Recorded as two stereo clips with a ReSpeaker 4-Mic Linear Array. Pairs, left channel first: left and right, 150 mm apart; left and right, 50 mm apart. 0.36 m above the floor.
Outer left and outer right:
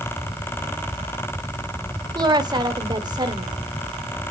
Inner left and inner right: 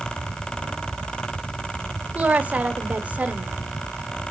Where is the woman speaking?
30° right (ahead or behind), 1.3 m.